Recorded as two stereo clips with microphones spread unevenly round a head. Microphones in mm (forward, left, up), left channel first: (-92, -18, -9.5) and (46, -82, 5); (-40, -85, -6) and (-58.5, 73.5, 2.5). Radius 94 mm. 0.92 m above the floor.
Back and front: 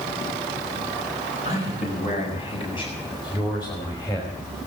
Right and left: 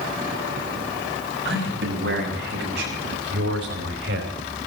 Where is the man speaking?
95° left, 6 m; by 4.3 s 80° left, 4.5 m.